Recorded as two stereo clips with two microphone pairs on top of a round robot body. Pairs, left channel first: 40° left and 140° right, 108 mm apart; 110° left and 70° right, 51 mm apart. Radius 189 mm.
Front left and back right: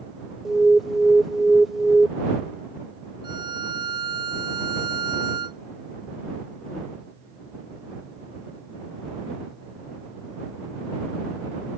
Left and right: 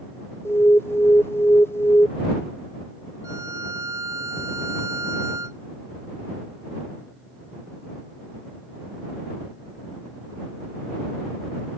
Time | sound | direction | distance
0.5 | an alarm | 135° left | ?
3.2 | a violin | 90° right | ?